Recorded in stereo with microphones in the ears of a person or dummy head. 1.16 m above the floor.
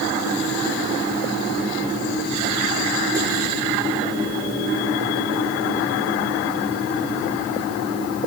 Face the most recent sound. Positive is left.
No sound to turn to.